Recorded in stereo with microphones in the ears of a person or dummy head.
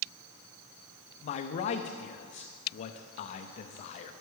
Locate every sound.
1.2 s a man speaking: 35° left (ahead or behind), 0.5 m